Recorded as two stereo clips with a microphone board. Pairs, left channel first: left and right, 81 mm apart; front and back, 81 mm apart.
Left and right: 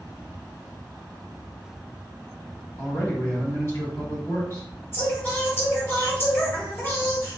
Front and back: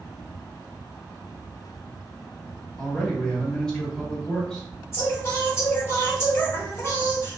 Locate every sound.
2.8 s a man speaking: 75° left, 1.3 m
4.9 s singing: 40° left, 1.3 m